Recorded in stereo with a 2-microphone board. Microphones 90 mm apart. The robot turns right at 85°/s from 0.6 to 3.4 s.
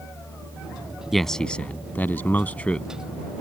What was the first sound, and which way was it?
A man speaking, centre (ahead or behind).